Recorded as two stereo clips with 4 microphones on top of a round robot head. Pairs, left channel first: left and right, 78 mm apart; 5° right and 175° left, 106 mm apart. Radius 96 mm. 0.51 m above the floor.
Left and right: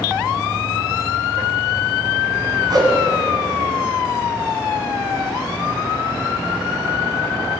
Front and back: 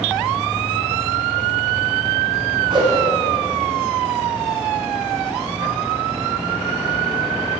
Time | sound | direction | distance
2.7 | a whoosh | 130° right | 1.3 m